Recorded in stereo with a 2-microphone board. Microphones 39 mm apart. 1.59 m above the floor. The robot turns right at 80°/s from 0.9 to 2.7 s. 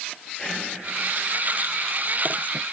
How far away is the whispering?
About 8 m.